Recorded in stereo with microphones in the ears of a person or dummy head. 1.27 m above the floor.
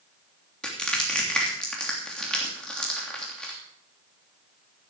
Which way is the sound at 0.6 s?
Centre (ahead or behind).